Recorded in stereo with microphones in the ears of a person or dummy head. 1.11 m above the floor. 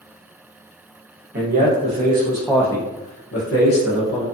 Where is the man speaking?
45° right (ahead or behind), 1.1 m; by 4.2 s 80° left, 1.1 m.